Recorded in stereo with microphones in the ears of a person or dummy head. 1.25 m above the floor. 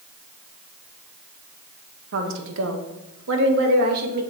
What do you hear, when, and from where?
2.1 s a woman speaking: 60° right (ahead or behind), 1.2 m; by 4.2 s 45° right (ahead or behind), 1.8 m